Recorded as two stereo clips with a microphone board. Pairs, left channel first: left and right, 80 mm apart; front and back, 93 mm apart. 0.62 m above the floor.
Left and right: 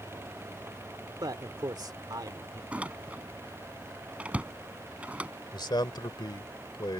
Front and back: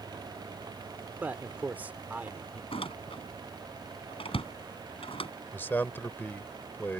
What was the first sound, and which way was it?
A man speaking, 110° right.